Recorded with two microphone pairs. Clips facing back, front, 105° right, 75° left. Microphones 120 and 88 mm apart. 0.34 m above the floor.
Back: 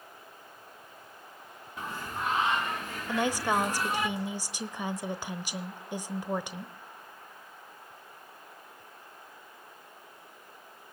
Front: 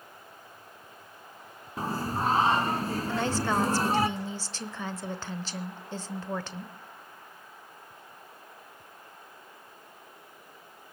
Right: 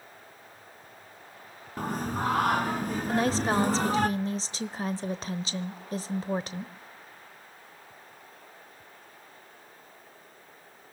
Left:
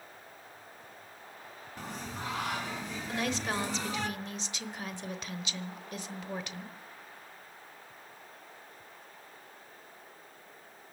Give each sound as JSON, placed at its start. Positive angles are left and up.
{"t": 1.8, "sound": "singing", "azimuth_deg": -55, "distance_m": 0.8}
{"t": 3.1, "sound": "a woman speaking", "azimuth_deg": -120, "distance_m": 0.9}